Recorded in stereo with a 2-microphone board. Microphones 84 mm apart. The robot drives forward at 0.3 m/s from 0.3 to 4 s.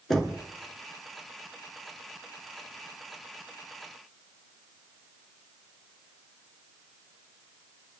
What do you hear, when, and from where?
0.1 s knocking: 5° left (ahead or behind), 2 m